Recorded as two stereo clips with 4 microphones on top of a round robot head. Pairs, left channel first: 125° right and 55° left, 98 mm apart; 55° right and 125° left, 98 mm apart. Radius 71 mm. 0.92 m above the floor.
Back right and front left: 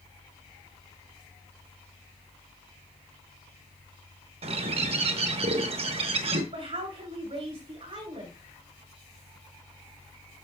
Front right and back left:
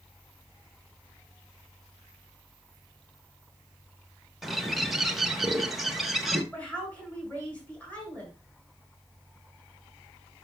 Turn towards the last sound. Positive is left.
turn(degrees=20)